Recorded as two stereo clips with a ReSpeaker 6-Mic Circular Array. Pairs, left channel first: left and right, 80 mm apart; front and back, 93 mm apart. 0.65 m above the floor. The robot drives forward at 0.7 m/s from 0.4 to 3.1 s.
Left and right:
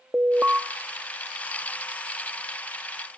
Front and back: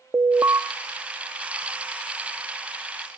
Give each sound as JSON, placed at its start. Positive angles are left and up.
{"t": 0.1, "sound": "an alarm", "azimuth_deg": -145, "distance_m": 0.7}